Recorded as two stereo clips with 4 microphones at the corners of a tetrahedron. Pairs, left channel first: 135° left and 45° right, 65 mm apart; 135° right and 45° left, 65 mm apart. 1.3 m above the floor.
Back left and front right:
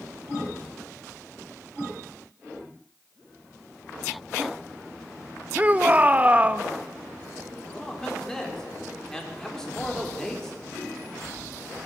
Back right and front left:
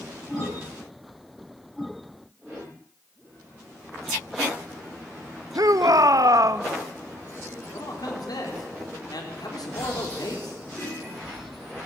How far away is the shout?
About 1.2 m.